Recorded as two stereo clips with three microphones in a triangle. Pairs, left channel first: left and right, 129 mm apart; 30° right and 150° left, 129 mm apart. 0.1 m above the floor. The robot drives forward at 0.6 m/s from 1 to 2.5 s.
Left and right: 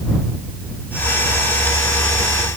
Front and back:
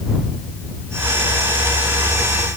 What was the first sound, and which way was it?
Only background noise.